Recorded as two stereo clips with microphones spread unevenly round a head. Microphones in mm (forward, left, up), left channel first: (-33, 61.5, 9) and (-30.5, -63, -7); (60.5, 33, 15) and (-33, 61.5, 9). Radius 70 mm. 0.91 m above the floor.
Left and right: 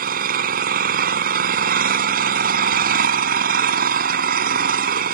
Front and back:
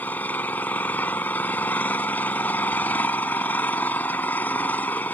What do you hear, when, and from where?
0.0 s an engine running: 95° right